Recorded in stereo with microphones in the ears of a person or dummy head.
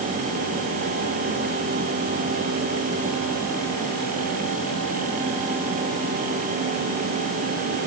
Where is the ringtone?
I don't hear a ringtone.